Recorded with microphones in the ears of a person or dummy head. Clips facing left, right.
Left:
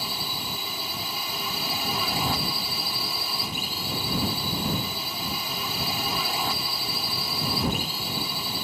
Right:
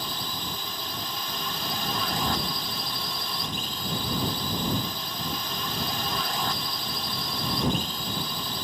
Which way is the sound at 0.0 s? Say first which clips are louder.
Even; 5° left (ahead or behind).